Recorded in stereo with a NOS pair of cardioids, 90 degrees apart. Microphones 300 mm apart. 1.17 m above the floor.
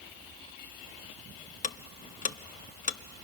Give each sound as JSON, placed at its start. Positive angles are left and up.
{"t": 1.6, "sound": "ticking", "azimuth_deg": 25, "distance_m": 0.7}